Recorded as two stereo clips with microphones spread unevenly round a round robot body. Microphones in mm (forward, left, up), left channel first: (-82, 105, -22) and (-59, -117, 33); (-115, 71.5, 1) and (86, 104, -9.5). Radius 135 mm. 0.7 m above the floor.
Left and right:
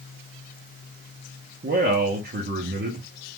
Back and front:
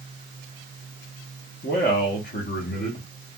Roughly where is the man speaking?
Behind right.